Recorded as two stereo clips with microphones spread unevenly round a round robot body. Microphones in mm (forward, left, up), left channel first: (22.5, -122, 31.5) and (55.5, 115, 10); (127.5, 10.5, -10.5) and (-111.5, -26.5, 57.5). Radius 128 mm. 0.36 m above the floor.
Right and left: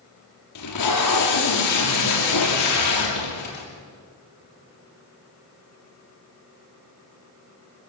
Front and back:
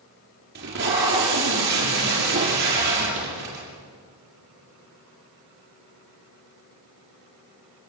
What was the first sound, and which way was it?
Tape being pulled, 120° right.